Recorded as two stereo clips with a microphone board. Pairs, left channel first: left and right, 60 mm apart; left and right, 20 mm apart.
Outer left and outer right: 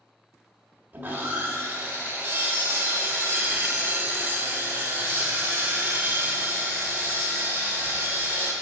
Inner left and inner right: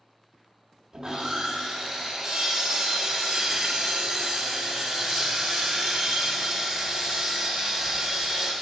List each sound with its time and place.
0.9 s sawing: 30° right (ahead or behind), 1.5 m